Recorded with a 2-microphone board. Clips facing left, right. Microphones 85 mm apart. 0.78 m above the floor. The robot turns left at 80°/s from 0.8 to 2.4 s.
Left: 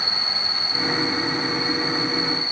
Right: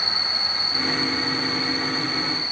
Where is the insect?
100° left, 1.9 m; by 2.5 s 30° right, 1.9 m.